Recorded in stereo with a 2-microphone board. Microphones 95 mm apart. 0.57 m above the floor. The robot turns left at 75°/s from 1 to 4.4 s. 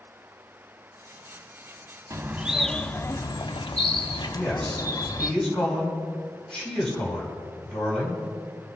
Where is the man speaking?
5° left (ahead or behind), 5 m; by 8.2 s 10° left (ahead or behind), 5 m.